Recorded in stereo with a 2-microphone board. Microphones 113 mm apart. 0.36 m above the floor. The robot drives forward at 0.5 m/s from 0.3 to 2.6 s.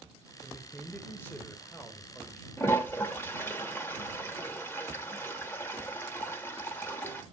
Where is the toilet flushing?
20° left (ahead or behind), 0.8 m.